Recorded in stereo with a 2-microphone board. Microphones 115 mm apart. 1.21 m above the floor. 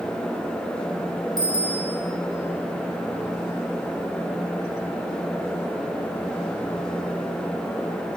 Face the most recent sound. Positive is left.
turn(degrees=-35)  # may be behind; listen again after turning